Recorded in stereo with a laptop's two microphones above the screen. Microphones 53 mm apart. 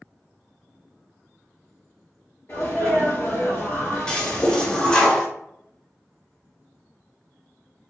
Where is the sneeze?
50° left (ahead or behind), 1.3 m.